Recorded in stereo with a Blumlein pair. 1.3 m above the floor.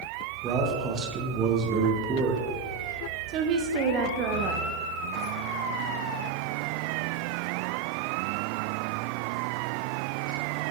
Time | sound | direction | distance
0.4 | a man speaking | 30° right | 0.9 m
3.3 | a woman speaking | 35° right | 0.6 m